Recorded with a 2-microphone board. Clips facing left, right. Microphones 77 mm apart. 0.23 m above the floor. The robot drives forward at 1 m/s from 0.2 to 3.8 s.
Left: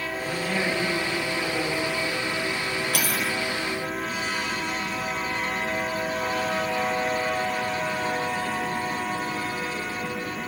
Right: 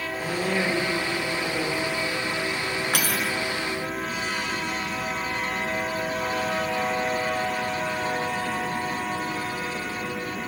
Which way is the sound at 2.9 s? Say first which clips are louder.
Right 1 dB; 60° right (ahead or behind).